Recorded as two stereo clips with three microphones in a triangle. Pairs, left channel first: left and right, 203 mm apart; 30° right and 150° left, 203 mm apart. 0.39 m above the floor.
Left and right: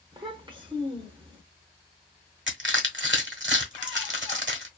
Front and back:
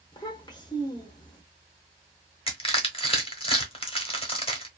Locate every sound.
0.1 s a child speaking: 70° right, 0.7 m
2.5 s crushing: 90° right, 1.1 m